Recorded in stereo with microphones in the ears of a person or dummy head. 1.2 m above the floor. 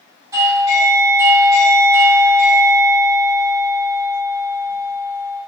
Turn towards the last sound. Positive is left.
turn(degrees=-15)  # may be behind; listen again after turning